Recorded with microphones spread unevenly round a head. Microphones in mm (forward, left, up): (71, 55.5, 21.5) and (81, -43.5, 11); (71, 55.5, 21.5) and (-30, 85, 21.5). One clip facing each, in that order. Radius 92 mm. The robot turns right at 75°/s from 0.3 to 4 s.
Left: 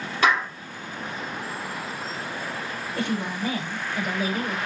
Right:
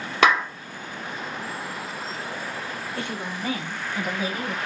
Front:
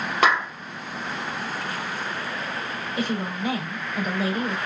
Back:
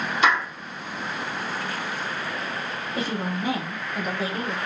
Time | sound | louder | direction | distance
0.2 | a clap | right 2 dB, front 1 dB | 75° right | 1.2 m
3.0 | a woman speaking | left 6 dB, front 1 dB | 165° left | 2.0 m